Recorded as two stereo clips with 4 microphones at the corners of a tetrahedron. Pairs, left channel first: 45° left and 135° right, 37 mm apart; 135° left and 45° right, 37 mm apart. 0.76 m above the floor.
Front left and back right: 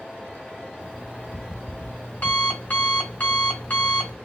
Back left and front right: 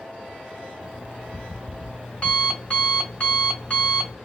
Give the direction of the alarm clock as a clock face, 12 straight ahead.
10 o'clock.